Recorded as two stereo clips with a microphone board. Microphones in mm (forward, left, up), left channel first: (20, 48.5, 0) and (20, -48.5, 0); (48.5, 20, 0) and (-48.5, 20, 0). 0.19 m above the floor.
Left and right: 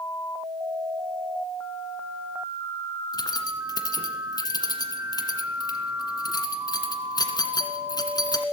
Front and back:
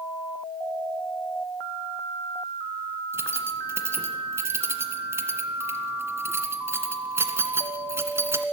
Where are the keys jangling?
120° left, 1.8 m.